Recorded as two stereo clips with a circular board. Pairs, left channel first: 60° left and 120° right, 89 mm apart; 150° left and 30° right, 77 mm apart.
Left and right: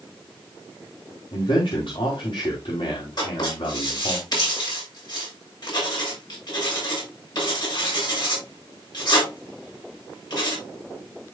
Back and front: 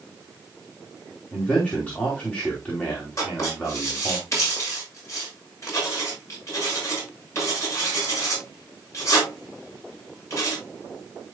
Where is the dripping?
No dripping in this recording.